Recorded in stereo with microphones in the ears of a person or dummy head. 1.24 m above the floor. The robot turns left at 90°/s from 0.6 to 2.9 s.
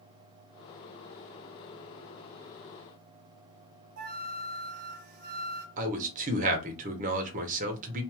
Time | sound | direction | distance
4.0 | a flute | 60° right (ahead or behind) | 0.9 m
5.8 | a man speaking | 45° right (ahead or behind) | 0.9 m